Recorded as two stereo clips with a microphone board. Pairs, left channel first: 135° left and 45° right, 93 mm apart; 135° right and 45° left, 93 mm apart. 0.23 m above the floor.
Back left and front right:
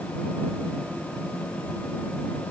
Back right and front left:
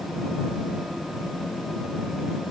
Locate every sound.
Only background noise.